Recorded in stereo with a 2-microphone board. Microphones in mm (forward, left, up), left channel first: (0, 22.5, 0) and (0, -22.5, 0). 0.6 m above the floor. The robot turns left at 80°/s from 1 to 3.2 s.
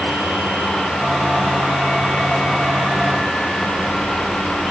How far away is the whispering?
I don't hear whispering.